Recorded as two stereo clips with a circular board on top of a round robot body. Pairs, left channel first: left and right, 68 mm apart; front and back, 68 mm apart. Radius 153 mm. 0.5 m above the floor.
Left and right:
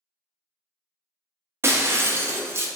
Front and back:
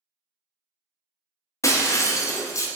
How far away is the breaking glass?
About 0.5 m.